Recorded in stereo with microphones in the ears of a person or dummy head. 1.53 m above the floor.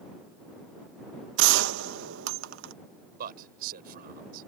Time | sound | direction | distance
1.4 | a gunshot | 70° right (ahead or behind) | ?
3.2 | a man speaking | 55° right (ahead or behind) | ?